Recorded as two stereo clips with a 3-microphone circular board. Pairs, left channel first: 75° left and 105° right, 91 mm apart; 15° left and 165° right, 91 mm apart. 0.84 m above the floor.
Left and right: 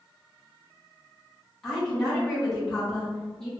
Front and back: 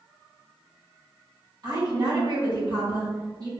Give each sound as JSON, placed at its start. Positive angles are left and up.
{"t": 1.6, "sound": "a woman speaking", "azimuth_deg": 160, "distance_m": 2.0}